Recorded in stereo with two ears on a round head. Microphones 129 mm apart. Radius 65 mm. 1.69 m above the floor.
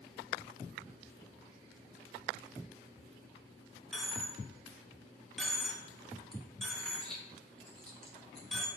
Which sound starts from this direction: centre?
A dropped coin, at 3.9 s.